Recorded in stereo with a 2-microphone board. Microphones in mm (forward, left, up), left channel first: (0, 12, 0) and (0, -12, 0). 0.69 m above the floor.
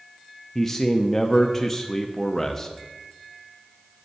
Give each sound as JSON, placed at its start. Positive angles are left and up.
{"t": 0.6, "sound": "a man speaking", "side_deg": 15, "distance_m": 0.6}